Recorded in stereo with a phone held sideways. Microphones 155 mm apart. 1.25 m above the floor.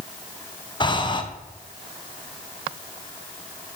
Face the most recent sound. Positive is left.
turn(degrees=30)  # may be behind; listen again after turning